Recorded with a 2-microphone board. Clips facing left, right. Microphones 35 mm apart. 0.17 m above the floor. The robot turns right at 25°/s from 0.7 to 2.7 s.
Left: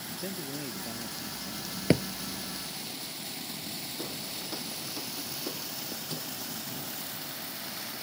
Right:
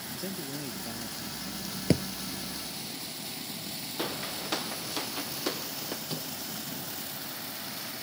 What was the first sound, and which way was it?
A man speaking, 10° left (ahead or behind).